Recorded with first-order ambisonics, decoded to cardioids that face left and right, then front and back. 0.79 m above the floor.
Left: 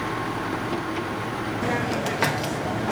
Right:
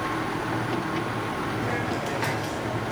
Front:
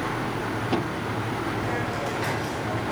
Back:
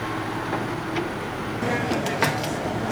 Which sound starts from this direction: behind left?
A hiss, at 1.6 s.